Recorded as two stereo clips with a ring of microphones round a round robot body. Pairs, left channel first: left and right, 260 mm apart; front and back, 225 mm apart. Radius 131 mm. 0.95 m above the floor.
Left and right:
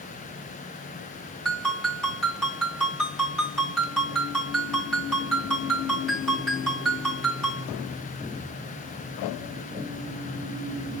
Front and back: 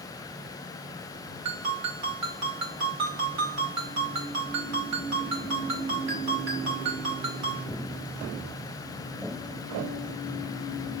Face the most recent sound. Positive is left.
turn(degrees=180)